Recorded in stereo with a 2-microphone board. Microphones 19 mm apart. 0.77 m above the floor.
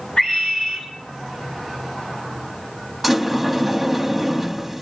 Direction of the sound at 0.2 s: 40° left (ahead or behind).